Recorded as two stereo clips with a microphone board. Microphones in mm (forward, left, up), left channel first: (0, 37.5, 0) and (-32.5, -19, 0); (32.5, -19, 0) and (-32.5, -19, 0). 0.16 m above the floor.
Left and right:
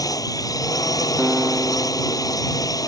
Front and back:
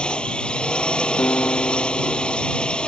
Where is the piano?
45° right.